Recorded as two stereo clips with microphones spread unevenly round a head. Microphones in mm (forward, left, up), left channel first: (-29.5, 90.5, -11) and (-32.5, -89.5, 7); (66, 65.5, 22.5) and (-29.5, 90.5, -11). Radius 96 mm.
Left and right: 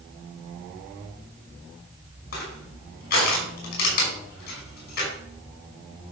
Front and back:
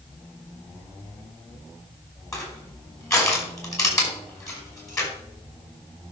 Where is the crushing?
45° left, 5 m.